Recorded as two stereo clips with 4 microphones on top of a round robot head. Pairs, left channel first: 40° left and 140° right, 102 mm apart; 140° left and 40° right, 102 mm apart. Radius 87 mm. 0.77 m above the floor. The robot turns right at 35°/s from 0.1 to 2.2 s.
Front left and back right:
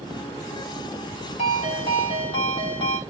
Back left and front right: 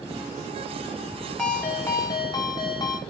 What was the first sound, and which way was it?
A ringtone, 55° left.